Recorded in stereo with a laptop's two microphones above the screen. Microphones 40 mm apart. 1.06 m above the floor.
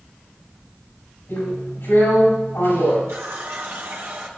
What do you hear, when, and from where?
1.3 s a drill: 65° left (ahead or behind), 6.5 m
3.1 s a running tap: 70° right (ahead or behind), 1.8 m